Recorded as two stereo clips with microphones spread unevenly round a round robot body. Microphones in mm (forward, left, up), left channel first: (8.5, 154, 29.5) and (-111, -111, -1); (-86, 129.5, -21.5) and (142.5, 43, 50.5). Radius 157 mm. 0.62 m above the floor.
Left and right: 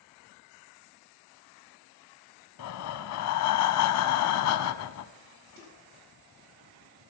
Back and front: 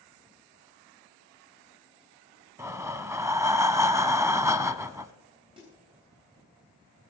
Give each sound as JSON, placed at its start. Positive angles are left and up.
{"t": 2.6, "sound": "breathing", "azimuth_deg": 45, "distance_m": 0.7}
{"t": 5.6, "sound": "a snare drum", "azimuth_deg": -100, "distance_m": 4.0}